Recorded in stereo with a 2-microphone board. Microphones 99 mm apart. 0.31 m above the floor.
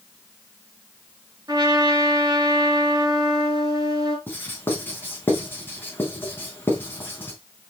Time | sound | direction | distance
1.5 | a trumpet | 40° right (ahead or behind) | 3.5 m
4.3 | writing | 20° left (ahead or behind) | 3.5 m